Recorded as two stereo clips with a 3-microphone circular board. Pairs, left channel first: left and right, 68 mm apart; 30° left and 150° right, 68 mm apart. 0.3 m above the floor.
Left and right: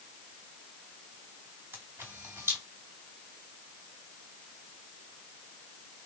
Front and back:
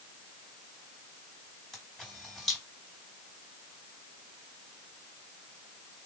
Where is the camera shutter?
55° right, 2 m.